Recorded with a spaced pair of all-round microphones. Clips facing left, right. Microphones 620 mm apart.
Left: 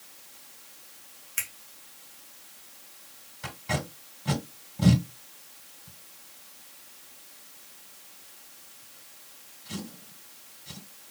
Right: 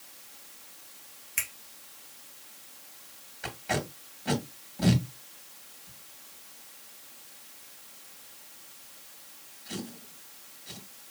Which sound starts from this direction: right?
A finger snap, at 1.4 s.